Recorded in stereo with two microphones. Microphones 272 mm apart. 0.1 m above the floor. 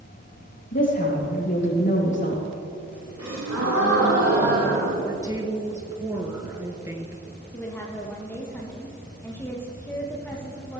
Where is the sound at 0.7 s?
45° left (ahead or behind), 4 m.